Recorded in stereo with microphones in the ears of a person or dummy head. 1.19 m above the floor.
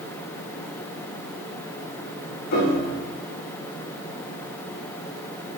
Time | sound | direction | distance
2.5 | a piano | 65° left (ahead or behind) | 2 m